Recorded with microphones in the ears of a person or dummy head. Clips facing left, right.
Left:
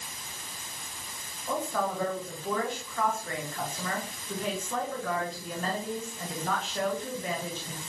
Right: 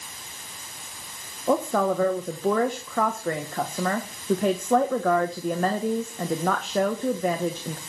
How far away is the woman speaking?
About 1.1 m.